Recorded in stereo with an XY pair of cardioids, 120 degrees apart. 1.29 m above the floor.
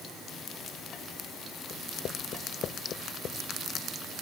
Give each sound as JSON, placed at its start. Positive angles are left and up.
{"t": 1.7, "sound": "writing", "azimuth_deg": 60}